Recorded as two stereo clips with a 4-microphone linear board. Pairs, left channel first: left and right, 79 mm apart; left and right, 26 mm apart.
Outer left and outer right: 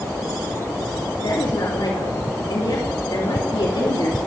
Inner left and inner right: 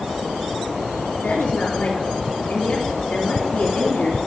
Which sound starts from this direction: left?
A woman speaking, at 1.2 s.